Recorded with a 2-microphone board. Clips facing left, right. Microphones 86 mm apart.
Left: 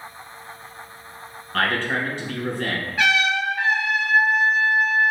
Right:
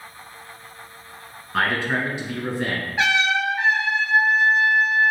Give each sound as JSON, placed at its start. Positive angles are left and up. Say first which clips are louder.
{"t": 1.5, "sound": "a man speaking", "louder": "even", "side_deg": -10, "distance_m": 1.5}
{"t": 3.0, "sound": "a trumpet", "louder": "even", "side_deg": -20, "distance_m": 1.1}